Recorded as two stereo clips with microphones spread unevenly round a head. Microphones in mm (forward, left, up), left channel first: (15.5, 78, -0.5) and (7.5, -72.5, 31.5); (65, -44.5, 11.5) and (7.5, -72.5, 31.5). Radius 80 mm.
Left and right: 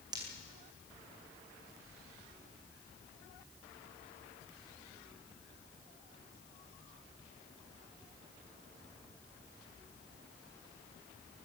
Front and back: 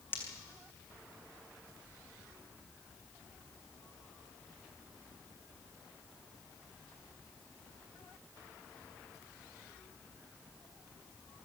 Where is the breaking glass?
35° right, 4 m.